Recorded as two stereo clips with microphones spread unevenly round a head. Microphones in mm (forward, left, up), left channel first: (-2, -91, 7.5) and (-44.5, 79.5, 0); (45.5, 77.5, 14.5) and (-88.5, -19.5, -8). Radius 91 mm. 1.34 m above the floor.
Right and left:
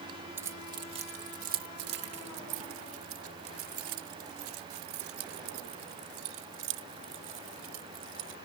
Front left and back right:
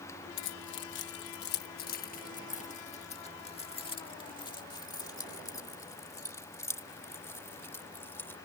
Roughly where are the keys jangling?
Ahead left.